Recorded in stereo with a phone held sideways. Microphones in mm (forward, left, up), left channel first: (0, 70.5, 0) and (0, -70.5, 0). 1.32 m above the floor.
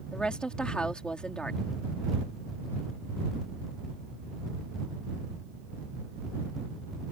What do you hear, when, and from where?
0.1 s a woman speaking: 5° left (ahead or behind)